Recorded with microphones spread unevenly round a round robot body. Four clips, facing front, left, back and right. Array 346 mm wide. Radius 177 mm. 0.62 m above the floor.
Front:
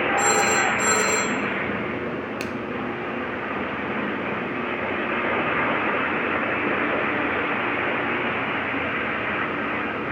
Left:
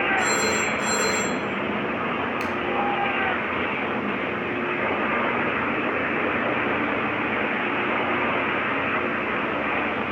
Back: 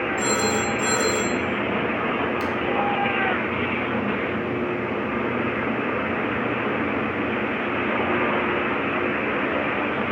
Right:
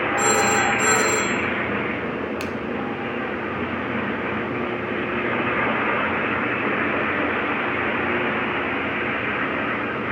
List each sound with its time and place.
0.2 s a phone ringing: 70° right, 3 m
2.4 s a finger snap: 15° right, 0.8 m